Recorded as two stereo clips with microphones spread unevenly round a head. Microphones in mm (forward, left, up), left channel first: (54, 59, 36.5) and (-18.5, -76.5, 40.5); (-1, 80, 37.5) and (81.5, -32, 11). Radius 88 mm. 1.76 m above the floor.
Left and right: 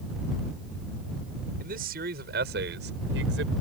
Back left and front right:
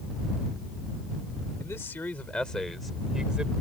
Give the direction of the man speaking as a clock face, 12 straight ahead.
5 o'clock.